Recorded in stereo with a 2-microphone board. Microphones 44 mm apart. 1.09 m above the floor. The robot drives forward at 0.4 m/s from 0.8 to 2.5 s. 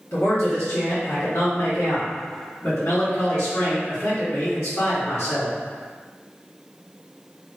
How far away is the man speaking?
About 1.2 m.